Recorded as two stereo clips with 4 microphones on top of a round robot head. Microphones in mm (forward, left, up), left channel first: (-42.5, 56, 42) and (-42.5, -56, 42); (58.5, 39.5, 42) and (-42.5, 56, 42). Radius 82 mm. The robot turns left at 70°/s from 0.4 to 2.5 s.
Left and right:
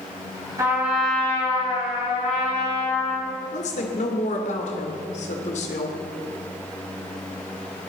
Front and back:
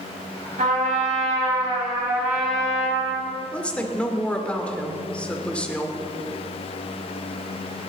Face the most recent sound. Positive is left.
turn(degrees=70)